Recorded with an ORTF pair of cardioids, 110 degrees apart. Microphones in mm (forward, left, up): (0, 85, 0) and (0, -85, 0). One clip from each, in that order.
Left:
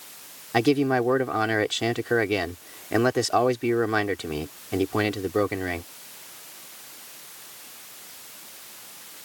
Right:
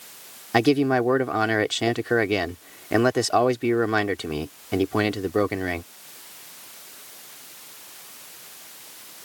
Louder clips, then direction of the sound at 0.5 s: Right 2 dB; 30° right.